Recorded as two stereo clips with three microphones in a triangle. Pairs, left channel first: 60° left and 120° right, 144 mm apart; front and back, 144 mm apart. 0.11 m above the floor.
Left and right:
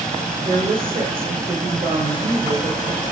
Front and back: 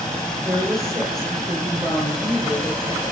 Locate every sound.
0.5 s a woman speaking: 85° right, 1.5 m